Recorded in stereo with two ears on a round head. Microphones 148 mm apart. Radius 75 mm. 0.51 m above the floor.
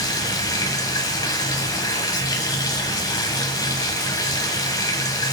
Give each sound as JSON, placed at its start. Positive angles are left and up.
{"t": 0.0, "sound": "running water", "side_deg": 25, "distance_m": 1.2}